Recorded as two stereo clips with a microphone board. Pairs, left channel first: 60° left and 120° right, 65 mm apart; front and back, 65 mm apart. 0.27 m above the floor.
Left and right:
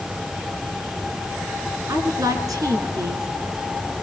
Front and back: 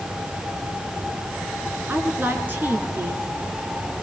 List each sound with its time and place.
1.9 s a woman speaking: 120° right, 4 m